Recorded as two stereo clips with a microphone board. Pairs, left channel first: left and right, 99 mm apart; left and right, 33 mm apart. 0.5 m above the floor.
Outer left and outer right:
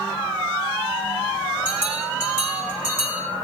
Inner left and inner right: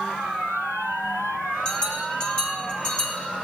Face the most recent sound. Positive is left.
turn(degrees=20)  # may be behind; listen again after turning